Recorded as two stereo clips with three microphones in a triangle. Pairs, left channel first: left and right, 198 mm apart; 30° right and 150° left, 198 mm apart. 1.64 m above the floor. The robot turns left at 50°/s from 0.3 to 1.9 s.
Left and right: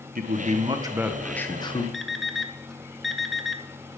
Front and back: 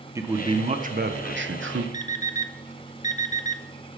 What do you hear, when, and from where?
0.1 s a man speaking: 135° right, 1.6 m; by 1.8 s 150° left, 1.6 m
1.9 s an alarm clock: straight ahead, 1.0 m